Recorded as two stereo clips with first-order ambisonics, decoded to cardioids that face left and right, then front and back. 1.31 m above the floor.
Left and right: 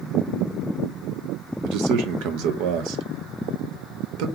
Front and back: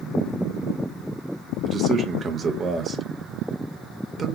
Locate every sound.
1.6 s a man speaking: 110° right, 0.7 m